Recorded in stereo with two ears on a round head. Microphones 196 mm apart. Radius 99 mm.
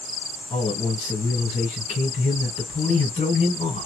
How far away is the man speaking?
About 1.7 m.